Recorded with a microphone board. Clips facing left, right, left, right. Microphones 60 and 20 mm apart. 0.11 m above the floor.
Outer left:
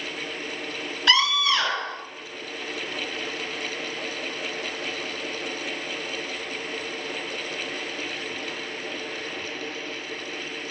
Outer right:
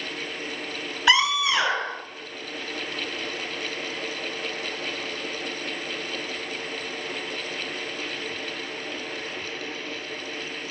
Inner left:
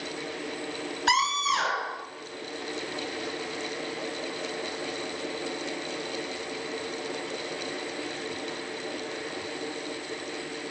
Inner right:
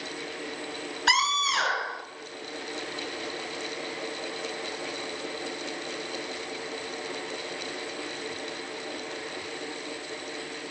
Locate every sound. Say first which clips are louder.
1.1 s a scream: outer right 1 dB, inner right 1 dB; 15° right (ahead or behind), 1.1 m